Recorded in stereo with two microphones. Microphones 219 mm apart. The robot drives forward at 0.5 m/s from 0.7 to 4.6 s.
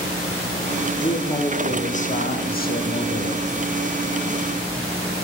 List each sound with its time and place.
1.0 s a man speaking: 25° left (ahead or behind), 1.1 m; by 3.5 s 35° left (ahead or behind), 0.7 m